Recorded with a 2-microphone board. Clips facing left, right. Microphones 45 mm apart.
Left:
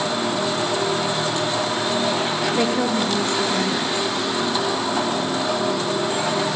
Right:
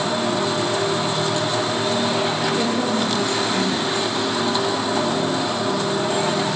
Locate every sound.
2.5 s a woman speaking: 40° left (ahead or behind), 6 m